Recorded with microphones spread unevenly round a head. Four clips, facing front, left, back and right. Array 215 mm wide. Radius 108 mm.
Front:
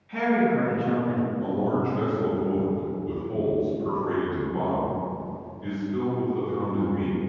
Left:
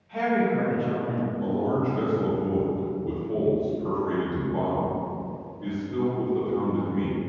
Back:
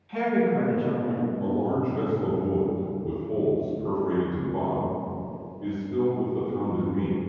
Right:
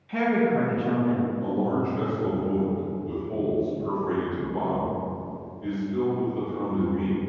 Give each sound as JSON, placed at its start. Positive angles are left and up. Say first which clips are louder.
{"t": 0.1, "sound": "a woman speaking", "louder": "right 1 dB, front 1 dB", "azimuth_deg": -95, "distance_m": 0.7}
{"t": 1.4, "sound": "a man speaking", "louder": "even, back 1 dB", "azimuth_deg": 145, "distance_m": 0.9}